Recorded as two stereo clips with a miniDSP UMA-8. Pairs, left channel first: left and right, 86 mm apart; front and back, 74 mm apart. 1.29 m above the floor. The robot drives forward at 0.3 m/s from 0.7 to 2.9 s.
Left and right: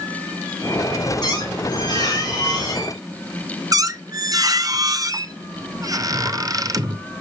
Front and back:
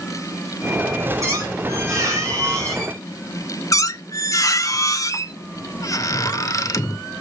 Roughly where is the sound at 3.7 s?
Ahead right.